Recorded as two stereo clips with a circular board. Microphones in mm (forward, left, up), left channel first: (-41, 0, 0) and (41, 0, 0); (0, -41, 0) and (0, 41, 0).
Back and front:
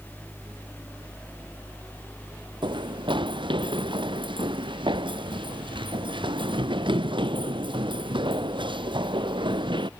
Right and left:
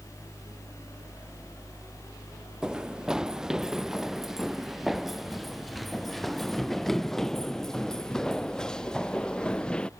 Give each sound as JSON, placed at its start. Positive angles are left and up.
{"t": 2.6, "sound": "running footsteps", "azimuth_deg": 10}